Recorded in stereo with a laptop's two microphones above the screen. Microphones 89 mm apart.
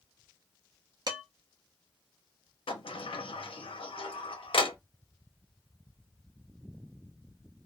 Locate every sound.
1.1 s dishes clattering: 50° right (ahead or behind), 0.8 m
2.7 s a sliding door: 75° left (ahead or behind), 0.6 m